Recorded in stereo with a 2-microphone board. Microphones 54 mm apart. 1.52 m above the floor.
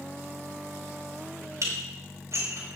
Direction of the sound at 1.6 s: 65° right (ahead or behind).